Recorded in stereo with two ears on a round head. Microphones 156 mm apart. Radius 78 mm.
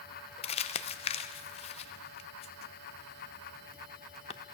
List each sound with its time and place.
0.4 s crumpling: 35° left (ahead or behind), 0.6 m